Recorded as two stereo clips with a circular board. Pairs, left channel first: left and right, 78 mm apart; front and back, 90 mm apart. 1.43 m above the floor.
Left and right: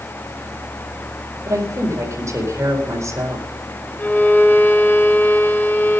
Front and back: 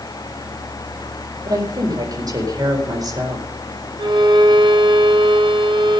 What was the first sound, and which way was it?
A woman speaking, 140° right.